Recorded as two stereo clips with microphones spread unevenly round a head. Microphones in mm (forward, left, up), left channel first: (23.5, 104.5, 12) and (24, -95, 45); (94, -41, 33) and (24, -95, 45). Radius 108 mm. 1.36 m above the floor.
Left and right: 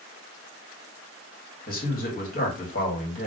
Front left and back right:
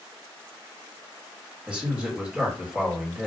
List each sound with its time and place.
1.7 s a man speaking: 135° left, 1.4 m